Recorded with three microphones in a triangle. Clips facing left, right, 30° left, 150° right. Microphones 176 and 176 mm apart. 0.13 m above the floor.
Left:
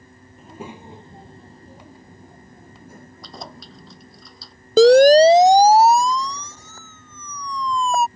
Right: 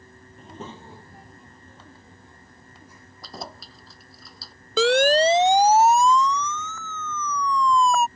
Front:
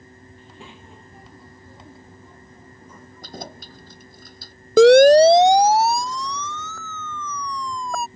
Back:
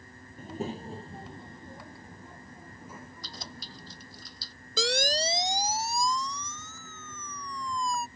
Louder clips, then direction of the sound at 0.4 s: Left 3 dB, back 12 dB; 175° left.